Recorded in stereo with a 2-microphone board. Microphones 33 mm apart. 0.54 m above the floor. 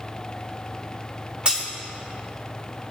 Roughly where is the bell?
I don't hear a bell.